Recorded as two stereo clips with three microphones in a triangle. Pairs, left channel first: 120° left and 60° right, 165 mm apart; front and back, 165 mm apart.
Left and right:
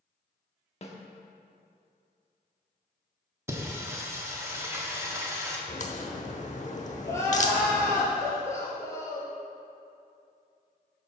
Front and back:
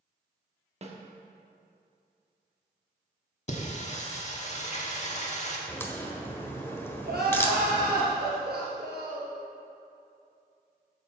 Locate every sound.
0.8 s a snare drum: 150° left, 1.1 m
3.5 s singing: 5° left, 1.3 m
5.7 s a crack: 75° left, 1.0 m
7.0 s crying: 170° right, 2.5 m